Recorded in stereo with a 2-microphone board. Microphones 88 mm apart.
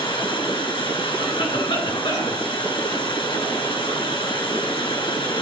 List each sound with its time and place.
0.0 s running water: 75° left (ahead or behind), 4 m
1.2 s a cough: 80° left, 4.5 m